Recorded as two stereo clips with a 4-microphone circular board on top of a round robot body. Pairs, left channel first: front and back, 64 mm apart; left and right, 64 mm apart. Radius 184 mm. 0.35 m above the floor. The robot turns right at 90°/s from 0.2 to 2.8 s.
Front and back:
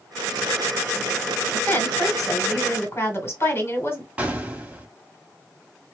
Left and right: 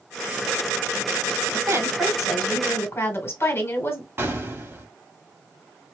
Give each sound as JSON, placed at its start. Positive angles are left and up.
{"t": 1.5, "sound": "a woman speaking", "azimuth_deg": -70, "distance_m": 2.0}
{"t": 4.2, "sound": "an explosion", "azimuth_deg": -125, "distance_m": 1.7}